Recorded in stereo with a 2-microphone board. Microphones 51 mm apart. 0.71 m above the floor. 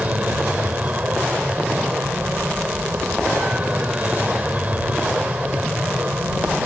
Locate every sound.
0.0 s an aircraft: 30° right (ahead or behind)